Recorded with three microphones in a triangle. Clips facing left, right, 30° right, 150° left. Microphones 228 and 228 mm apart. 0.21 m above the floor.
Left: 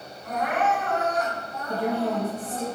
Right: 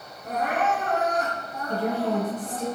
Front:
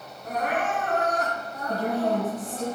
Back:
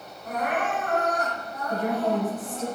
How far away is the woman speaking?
About 2.5 m.